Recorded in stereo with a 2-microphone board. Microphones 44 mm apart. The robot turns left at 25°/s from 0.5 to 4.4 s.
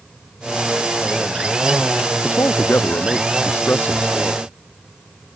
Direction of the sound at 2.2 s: 90° left.